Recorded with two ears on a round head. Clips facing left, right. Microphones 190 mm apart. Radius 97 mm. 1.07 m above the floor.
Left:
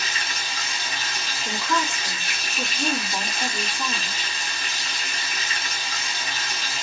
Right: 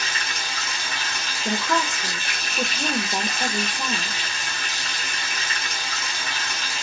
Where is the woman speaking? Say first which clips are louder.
Right 2 dB; 50° right (ahead or behind), 1.2 m.